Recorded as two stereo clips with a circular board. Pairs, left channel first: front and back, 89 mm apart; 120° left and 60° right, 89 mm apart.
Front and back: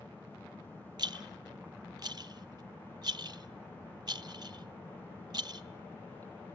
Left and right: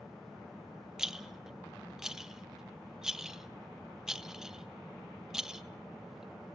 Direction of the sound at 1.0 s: 145° right.